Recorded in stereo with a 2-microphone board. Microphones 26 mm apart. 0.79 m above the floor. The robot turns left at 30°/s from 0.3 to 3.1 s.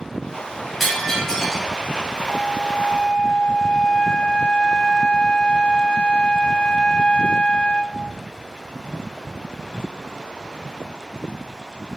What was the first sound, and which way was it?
Breaking glass, centre (ahead or behind).